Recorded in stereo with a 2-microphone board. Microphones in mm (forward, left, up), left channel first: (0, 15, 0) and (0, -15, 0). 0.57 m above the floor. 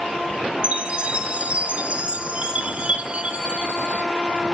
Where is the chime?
40° right (ahead or behind), 1.4 m.